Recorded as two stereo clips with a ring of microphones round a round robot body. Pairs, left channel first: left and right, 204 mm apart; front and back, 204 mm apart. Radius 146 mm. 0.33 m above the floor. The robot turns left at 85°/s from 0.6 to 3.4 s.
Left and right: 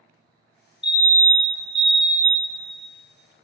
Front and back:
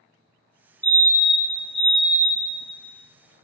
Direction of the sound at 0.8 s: 70° left.